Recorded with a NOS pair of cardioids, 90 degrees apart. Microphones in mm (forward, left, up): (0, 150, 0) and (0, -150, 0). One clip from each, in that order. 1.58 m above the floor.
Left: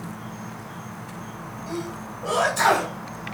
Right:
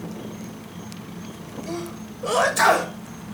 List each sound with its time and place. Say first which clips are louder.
0.0 s an insect: right 1 dB; 15° right, 3 m
1.7 s a sneeze: even; 30° right, 7.5 m